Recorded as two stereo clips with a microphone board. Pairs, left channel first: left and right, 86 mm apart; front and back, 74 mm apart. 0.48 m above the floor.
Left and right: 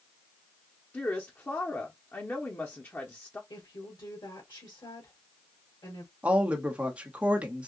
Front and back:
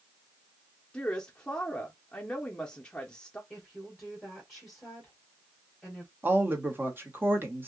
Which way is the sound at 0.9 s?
60° left.